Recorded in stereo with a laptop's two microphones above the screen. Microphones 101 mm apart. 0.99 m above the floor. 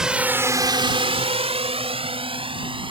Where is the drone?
5° right (ahead or behind); by 2.9 s 60° right (ahead or behind).